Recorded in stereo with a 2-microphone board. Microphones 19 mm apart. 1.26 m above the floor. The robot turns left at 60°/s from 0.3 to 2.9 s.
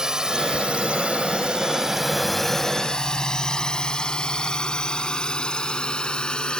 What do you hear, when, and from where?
0.0 s a drone: 40° right (ahead or behind); by 6.6 s 60° left (ahead or behind)